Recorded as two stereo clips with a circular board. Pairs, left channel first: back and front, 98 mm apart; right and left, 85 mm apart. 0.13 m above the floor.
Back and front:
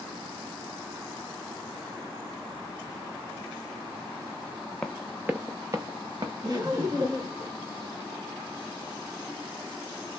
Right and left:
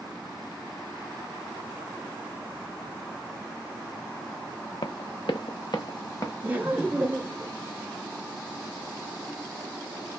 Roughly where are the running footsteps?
Right.